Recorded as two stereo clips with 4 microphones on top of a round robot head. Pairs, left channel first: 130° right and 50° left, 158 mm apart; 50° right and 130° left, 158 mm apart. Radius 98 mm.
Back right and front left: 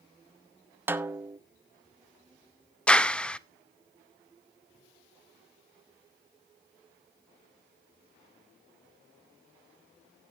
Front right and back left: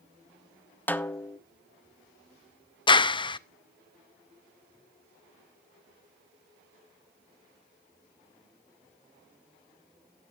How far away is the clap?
About 0.6 m.